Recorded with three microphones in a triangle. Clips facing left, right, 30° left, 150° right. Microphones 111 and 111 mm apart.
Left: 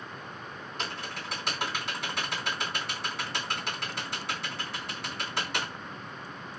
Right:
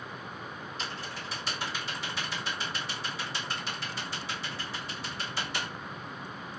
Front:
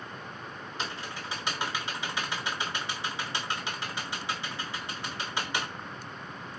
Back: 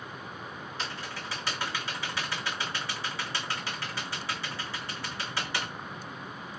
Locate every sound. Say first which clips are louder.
0.8 s typing on a keyboard: left 4 dB, front 2 dB; 100° left, 2.5 m